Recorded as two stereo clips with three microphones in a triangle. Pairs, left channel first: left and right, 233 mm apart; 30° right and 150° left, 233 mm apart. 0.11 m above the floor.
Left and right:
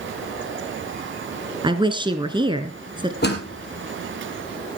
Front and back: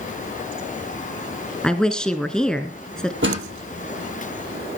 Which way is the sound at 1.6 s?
110° right.